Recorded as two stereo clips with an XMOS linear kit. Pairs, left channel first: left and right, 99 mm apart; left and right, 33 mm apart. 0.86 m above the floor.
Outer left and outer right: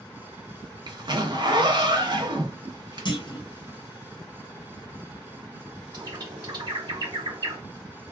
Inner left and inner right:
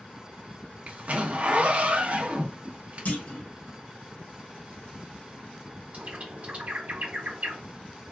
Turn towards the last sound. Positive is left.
turn(degrees=-45)  # may be behind; listen again after turning